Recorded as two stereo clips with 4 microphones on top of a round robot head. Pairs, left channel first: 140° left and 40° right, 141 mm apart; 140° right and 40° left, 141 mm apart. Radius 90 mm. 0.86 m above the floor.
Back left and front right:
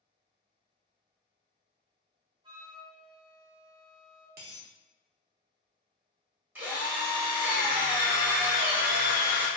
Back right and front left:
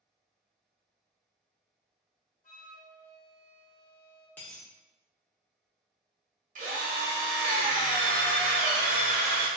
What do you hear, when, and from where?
2.4 s a flute: 105° right, 0.9 m
4.4 s a dropped coin: 60° right, 0.6 m
6.5 s a drill: 30° left, 1.4 m